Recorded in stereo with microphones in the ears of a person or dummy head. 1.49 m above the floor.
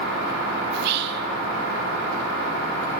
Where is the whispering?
60° right (ahead or behind), 0.8 m.